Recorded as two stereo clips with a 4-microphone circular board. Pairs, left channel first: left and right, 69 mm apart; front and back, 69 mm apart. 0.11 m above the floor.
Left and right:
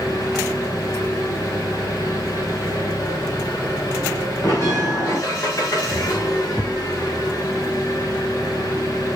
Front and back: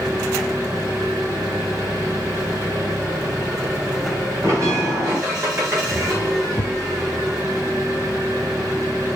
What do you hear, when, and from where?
0.0 s an engine running: 130° left, 8.5 m
4.4 s a bell: 135° left, 6.5 m
6.6 s a thud: straight ahead, 0.7 m